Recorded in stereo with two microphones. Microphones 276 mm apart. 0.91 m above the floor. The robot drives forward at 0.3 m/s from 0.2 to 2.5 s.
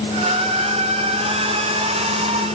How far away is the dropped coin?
I don't hear a dropped coin.